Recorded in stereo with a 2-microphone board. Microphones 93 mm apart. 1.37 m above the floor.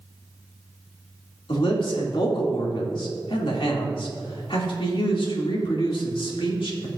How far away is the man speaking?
About 2.5 m.